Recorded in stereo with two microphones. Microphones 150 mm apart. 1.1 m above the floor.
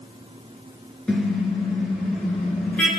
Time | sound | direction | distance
1.1 | a car horn | 5° left (ahead or behind) | 8.5 m